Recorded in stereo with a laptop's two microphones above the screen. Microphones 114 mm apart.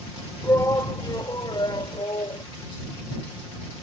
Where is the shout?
30° left (ahead or behind); by 2.4 s 50° left (ahead or behind).